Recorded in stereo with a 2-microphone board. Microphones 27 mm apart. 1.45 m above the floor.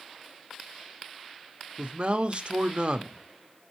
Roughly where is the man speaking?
Right.